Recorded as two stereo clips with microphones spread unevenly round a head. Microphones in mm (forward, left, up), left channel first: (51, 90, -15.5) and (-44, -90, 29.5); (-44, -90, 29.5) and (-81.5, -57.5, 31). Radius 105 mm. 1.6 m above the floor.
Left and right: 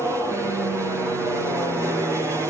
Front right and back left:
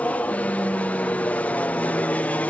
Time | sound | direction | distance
0.0 | an aircraft | 30° right | ?